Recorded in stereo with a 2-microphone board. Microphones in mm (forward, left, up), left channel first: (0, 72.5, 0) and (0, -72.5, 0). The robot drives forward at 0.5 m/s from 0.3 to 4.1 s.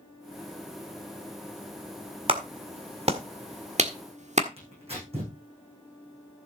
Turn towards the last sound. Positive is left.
turn(degrees=-45)  # may be behind; listen again after turning